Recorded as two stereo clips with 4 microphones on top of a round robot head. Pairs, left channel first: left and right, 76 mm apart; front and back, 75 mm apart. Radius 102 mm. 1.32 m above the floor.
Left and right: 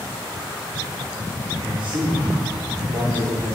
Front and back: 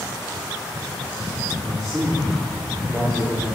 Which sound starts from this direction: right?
A man speaking, at 1.6 s.